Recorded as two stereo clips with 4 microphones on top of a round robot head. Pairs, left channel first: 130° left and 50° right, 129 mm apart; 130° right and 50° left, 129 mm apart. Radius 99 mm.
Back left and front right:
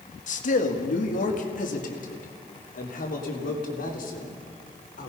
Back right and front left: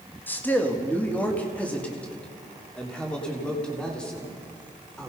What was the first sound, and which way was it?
A man speaking, 150° left.